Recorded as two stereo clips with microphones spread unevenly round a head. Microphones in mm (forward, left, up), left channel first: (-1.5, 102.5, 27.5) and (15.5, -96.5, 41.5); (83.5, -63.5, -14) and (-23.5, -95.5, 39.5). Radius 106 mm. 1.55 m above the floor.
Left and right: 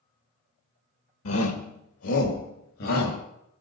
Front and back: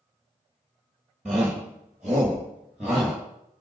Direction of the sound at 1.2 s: 115° left.